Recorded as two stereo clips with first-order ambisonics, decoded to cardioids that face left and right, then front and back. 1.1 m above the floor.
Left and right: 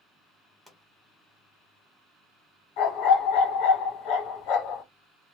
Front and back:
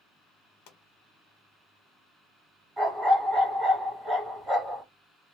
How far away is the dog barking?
About 1.8 m.